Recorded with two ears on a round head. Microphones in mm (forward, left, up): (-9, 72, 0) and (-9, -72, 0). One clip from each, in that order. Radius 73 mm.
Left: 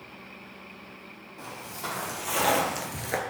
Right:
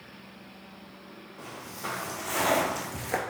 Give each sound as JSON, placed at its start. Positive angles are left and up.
{"t": 1.4, "sound": "footsteps", "side_deg": 30, "distance_m": 1.6}